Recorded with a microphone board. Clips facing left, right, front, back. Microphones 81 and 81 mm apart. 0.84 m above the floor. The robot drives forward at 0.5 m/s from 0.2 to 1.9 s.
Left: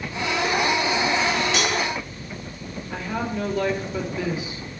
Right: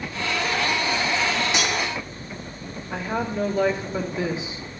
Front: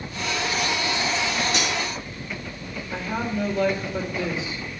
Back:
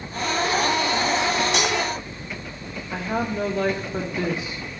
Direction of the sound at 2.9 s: 155° right.